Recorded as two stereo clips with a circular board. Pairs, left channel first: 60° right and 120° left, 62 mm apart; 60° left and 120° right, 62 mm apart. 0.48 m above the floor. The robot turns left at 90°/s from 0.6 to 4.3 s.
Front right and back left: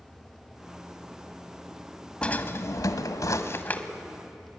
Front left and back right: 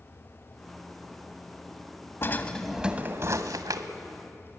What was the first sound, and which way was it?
A drawer, 15° left.